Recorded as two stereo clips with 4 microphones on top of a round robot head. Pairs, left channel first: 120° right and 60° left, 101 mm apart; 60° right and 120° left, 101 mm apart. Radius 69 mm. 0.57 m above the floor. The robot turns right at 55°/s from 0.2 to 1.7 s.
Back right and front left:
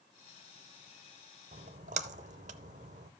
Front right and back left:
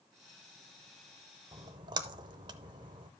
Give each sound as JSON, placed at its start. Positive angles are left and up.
{"t": 1.5, "sound": "a splash", "azimuth_deg": 60, "distance_m": 0.6}